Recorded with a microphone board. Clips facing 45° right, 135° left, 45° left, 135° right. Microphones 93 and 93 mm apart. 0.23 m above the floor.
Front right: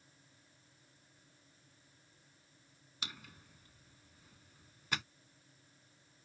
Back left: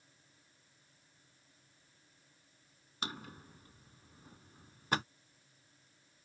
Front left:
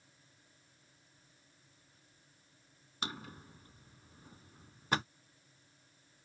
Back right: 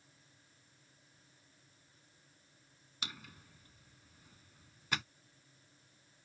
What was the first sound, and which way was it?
A drawer, 90° left.